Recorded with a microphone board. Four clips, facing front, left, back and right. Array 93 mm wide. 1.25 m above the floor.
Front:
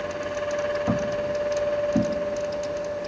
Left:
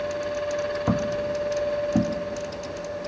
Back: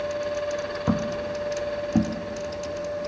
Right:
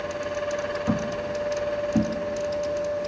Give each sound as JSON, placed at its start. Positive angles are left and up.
{"t": 0.9, "sound": "footsteps", "azimuth_deg": 125, "distance_m": 1.7}